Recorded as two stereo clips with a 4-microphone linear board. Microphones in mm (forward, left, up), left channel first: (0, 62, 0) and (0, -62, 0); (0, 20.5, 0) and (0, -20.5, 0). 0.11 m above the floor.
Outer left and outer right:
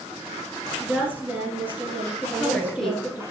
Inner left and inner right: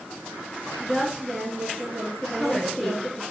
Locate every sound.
0.8 s a woman speaking: 15° right (ahead or behind), 1.8 m
2.2 s a woman speaking: 5° left (ahead or behind), 1.4 m